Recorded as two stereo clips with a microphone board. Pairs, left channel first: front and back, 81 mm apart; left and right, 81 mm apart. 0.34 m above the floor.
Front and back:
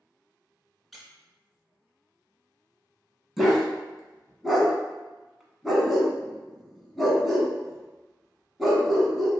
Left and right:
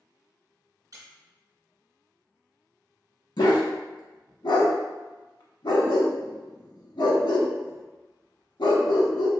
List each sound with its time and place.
0.9 s a squeak: 90° right, 0.8 m
3.4 s a dog barking: 90° left, 0.8 m